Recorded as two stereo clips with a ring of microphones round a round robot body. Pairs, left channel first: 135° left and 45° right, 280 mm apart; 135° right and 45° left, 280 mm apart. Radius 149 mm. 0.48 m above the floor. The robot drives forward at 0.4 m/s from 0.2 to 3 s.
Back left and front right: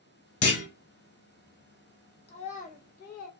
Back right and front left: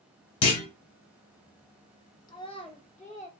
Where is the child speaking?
170° left, 0.8 m; by 3.3 s 175° left, 1.0 m.